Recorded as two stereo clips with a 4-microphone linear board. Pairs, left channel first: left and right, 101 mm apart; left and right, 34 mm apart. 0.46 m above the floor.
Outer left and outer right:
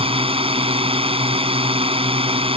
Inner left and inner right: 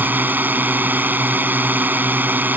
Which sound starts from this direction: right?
A drone, at 0.0 s.